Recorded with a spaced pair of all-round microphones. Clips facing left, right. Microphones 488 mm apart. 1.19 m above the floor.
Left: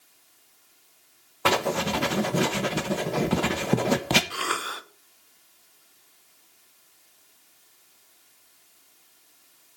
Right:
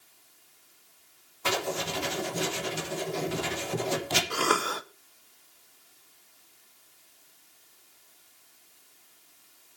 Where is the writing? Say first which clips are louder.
Left 6 dB; 75° left (ahead or behind), 1.2 m.